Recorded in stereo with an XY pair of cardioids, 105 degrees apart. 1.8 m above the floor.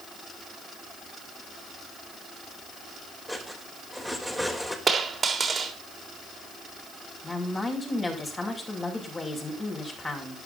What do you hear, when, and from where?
3.3 s cutlery clinking: 5° left, 4.5 m
4.9 s a dropped coin: 35° right, 3.5 m
7.2 s a woman speaking: 25° left, 6.5 m